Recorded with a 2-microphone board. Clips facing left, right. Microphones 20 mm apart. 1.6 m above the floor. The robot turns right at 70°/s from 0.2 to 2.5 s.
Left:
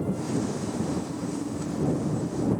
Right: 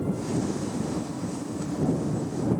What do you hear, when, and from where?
Only background noise.